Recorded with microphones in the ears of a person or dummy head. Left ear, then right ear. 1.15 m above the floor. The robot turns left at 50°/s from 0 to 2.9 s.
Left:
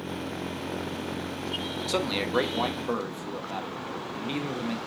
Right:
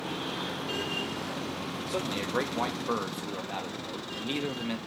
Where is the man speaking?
45° left, 1.1 m; by 4.8 s 10° right, 1.1 m.